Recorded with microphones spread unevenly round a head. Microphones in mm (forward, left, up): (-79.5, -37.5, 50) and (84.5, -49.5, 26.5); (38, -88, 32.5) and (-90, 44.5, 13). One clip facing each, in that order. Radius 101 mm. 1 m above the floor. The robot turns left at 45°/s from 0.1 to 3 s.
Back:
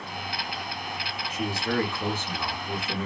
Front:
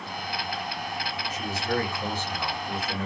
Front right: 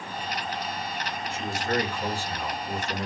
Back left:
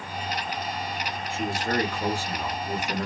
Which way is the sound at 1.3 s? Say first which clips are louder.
Back 2 dB, back left 1 dB; straight behind.